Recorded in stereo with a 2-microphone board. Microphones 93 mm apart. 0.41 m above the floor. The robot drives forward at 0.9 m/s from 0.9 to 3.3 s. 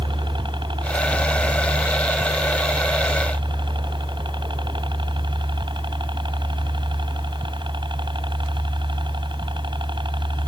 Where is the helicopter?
60° right (ahead or behind).